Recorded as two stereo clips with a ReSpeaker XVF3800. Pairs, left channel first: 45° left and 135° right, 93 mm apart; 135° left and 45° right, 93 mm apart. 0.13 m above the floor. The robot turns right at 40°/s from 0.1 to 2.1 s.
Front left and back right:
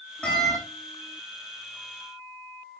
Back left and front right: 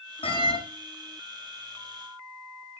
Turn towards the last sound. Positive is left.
turn(degrees=-160)